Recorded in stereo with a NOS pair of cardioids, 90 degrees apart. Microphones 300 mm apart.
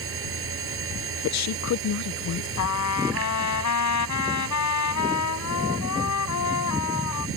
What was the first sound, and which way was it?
A machine running, 45° right.